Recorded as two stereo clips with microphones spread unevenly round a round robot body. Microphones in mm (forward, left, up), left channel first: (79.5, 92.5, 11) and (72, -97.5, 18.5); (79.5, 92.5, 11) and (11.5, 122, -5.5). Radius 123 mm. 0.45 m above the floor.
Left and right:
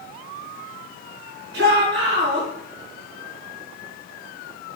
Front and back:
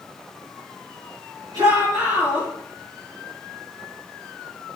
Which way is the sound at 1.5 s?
140° right.